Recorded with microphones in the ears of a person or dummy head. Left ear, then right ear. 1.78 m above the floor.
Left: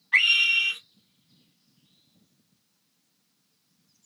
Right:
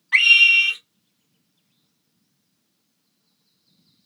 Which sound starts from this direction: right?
A scream, at 0.1 s.